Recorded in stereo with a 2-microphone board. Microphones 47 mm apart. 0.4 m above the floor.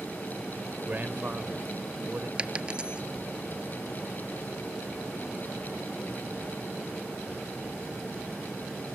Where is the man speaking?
35° right (ahead or behind).